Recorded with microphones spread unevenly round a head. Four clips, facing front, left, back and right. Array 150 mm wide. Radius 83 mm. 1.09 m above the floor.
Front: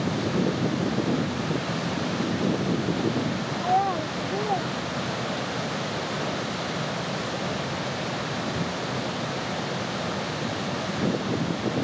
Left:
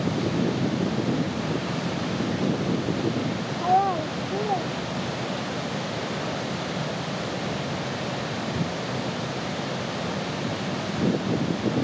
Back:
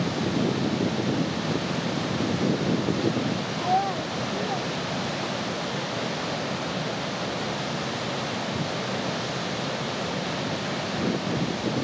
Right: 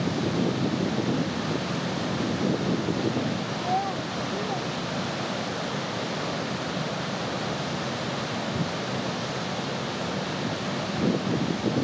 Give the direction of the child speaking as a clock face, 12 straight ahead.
8 o'clock.